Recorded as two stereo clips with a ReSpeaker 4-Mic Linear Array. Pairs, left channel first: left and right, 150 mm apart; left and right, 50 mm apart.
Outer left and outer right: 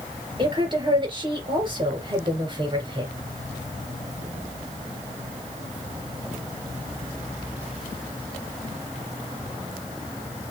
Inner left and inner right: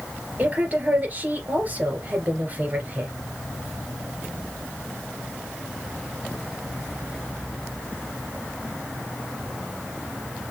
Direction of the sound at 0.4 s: 35° right (ahead or behind).